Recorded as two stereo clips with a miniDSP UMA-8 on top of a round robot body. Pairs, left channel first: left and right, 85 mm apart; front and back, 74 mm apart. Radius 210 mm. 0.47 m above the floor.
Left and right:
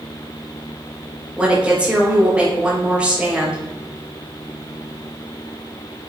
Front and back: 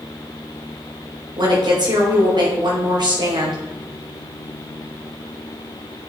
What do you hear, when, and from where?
1.4 s a woman speaking: 170° right, 4 m